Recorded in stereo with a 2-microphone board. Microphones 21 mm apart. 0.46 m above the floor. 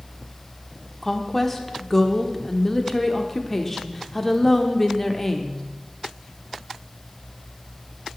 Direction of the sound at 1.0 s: 10° left (ahead or behind).